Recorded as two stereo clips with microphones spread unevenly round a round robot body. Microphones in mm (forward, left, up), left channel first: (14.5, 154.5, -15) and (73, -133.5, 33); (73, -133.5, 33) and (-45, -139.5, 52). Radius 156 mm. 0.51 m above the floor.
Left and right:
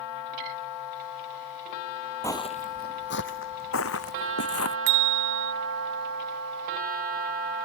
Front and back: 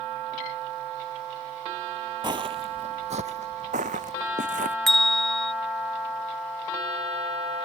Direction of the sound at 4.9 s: 85° right.